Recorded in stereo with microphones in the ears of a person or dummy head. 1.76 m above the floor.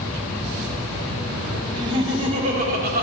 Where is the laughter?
25° right (ahead or behind), 1.3 m; by 3.0 s 55° right (ahead or behind), 1.5 m.